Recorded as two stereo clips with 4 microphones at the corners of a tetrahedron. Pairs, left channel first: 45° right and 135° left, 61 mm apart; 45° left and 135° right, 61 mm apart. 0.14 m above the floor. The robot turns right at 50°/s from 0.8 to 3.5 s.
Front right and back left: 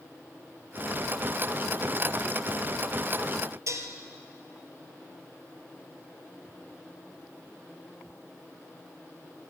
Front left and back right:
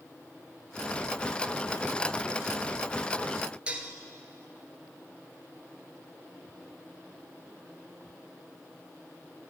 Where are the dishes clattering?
155° left, 1.8 m.